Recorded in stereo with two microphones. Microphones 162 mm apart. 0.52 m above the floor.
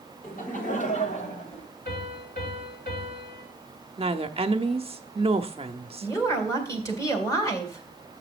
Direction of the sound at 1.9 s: 65° left (ahead or behind).